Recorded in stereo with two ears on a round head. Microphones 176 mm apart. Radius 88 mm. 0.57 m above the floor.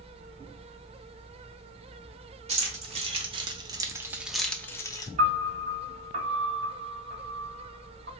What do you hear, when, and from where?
2.5 s keys jangling: 30° right (ahead or behind), 1.1 m; by 5.1 s 20° left (ahead or behind), 0.6 m
5.2 s a piano: 35° right (ahead or behind), 1.7 m